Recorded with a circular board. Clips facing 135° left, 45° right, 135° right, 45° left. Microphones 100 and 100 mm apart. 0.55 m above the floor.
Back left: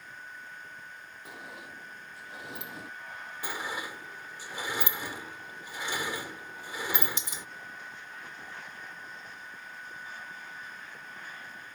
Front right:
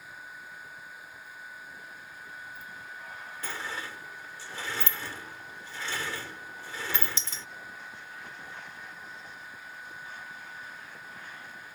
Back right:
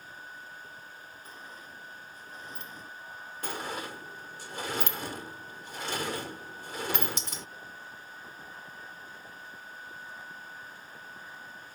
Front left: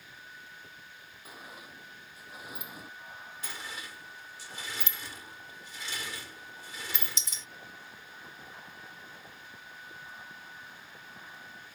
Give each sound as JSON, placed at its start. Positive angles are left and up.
{"t": 1.2, "sound": "a sliding door", "azimuth_deg": 125}
{"t": 3.4, "sound": "a sliding door", "azimuth_deg": -155}